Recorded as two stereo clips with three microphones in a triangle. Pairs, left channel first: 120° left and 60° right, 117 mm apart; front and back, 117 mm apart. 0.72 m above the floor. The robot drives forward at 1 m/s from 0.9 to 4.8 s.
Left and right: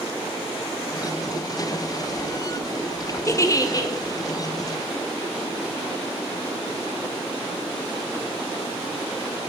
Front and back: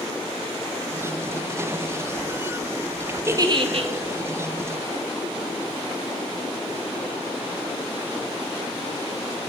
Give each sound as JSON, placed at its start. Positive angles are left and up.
{"t": 3.3, "sound": "a giggle", "azimuth_deg": 145, "distance_m": 0.5}